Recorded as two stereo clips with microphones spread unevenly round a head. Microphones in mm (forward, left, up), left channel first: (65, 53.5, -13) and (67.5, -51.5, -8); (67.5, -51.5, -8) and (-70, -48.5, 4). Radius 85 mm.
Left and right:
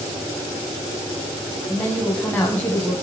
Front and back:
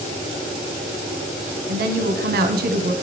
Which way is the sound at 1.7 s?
175° left.